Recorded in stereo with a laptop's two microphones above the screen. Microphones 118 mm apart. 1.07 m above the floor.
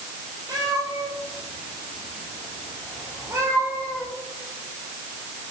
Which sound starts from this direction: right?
A cat meowing, at 0.5 s.